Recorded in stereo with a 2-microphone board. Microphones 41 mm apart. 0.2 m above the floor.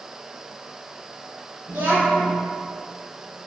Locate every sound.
1.7 s a child speaking: 60° right (ahead or behind), 1.4 m